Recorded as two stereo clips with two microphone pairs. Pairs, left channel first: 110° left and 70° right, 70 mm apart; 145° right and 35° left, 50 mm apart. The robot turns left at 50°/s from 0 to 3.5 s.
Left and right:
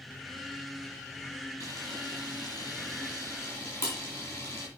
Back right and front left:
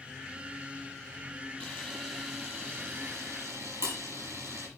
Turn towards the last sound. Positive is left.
turn(degrees=60)